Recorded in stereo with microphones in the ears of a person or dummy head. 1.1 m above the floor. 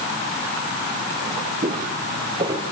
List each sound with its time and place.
1.6 s footsteps: 35° right (ahead or behind), 6 m; by 2.6 s 20° right (ahead or behind), 5.5 m